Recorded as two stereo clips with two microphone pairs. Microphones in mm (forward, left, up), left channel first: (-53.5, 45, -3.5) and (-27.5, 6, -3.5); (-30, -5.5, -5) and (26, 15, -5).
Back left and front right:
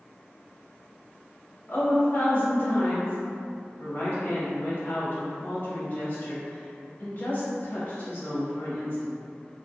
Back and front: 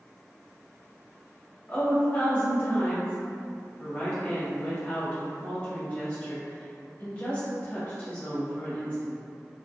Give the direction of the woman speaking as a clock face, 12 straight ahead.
7 o'clock.